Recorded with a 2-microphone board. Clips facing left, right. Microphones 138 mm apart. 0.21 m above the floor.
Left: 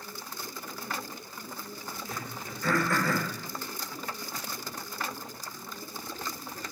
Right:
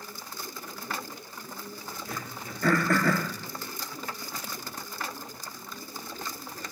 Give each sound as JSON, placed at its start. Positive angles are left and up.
{"t": 2.1, "sound": "throat clearing", "side_deg": -65, "distance_m": 0.9}